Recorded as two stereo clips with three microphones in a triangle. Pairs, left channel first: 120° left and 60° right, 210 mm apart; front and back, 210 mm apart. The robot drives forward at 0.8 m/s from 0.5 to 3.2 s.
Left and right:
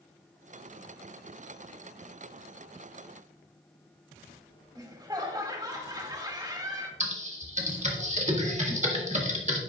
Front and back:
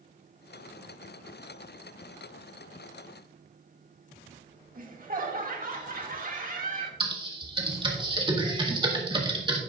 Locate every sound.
4.8 s laughter: 130° right, 2 m
7.0 s typing on a keyboard: 115° right, 1.5 m